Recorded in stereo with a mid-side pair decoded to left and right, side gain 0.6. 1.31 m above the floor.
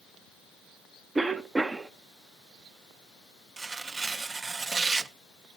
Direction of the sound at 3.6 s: 25° right.